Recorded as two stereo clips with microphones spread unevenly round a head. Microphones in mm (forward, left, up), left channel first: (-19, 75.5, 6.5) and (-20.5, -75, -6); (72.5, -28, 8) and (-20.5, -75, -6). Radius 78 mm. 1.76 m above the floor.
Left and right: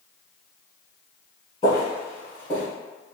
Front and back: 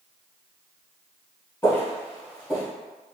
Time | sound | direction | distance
1.6 | footsteps | 60° left | 2.0 m